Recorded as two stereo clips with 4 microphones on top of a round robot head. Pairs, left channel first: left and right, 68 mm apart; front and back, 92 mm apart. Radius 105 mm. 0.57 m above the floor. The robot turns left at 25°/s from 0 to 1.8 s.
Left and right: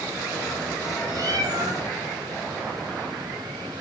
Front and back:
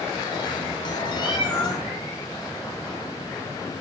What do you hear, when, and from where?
1.1 s a cat meowing: 45° right, 6.5 m; by 1.8 s 60° right, 6.5 m